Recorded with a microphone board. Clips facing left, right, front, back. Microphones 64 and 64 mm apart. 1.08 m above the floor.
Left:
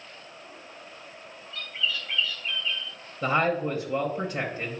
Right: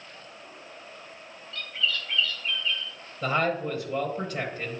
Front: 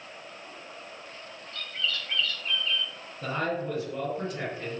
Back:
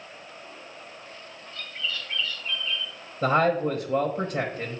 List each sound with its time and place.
1.5 s a bird: 10° left, 1.9 m
3.2 s a man speaking: 170° left, 0.9 m